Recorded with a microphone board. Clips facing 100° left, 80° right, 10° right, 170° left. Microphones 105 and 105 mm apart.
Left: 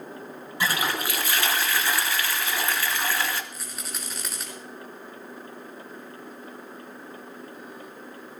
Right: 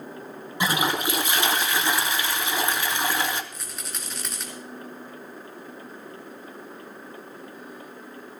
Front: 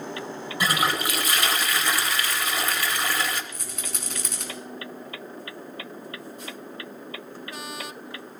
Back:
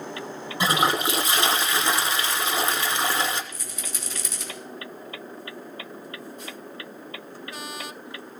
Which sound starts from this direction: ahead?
A rattle, at 3.5 s.